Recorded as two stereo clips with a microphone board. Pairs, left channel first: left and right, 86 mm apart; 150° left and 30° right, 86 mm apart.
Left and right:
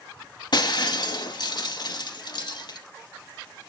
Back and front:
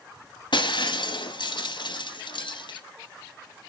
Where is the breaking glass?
120° left, 0.8 m.